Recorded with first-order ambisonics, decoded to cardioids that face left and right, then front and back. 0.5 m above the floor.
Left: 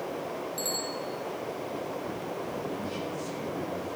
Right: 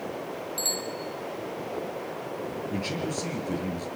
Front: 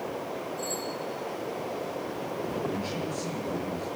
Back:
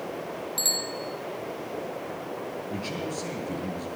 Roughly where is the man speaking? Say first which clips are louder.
Right 3 dB, even; right.